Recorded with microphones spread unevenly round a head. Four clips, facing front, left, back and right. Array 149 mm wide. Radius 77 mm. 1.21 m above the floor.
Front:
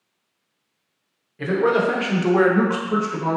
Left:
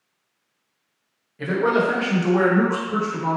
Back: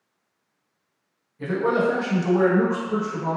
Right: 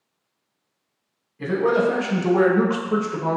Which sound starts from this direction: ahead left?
A man speaking, at 1.4 s.